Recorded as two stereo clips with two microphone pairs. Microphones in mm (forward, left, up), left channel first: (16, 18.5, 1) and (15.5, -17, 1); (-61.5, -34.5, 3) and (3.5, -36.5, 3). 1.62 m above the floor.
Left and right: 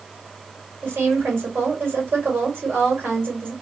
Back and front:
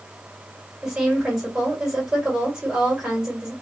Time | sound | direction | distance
0.8 | a woman speaking | 85° right | 1.6 m